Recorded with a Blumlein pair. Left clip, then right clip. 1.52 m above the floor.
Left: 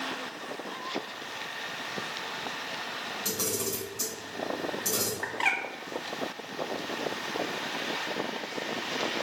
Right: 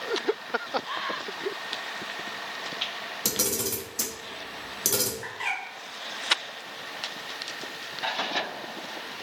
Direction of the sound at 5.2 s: 20° left.